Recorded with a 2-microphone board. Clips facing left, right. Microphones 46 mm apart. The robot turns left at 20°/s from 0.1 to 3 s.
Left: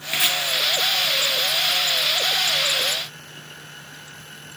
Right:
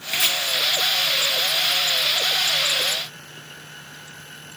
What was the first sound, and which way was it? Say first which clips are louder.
Chopping: left 1 dB; 15° left (ahead or behind).